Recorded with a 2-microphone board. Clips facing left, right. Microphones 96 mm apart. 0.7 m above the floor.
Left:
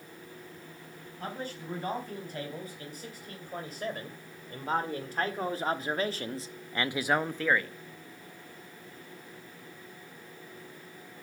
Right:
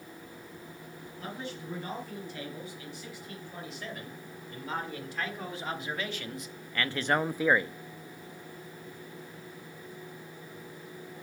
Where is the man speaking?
45° left (ahead or behind), 4.5 m; by 7.8 s 25° right (ahead or behind), 0.7 m.